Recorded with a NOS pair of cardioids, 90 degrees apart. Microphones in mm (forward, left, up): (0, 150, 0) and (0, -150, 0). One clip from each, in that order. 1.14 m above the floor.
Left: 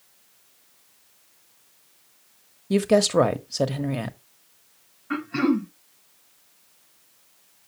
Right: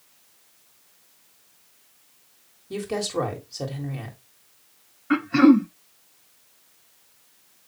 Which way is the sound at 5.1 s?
30° right.